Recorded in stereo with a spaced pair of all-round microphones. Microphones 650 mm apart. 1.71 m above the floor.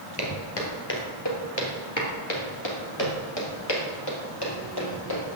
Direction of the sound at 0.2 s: 35° left (ahead or behind).